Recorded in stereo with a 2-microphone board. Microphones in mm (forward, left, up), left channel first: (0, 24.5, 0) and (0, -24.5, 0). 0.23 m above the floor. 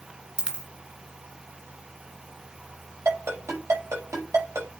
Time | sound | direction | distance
0.4 | a dropped coin | 20° right (ahead or behind) | 1.9 m
3.0 | a ringtone | 65° right (ahead or behind) | 5.5 m